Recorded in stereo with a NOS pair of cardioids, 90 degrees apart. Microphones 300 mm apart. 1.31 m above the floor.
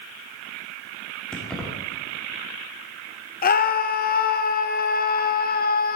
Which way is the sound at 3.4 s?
35° left.